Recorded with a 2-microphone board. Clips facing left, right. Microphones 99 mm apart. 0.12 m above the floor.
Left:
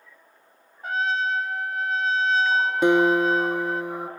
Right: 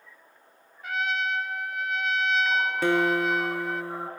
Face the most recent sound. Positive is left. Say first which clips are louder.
# left 6 dB
turn(degrees=15)  # may be behind; listen again after turning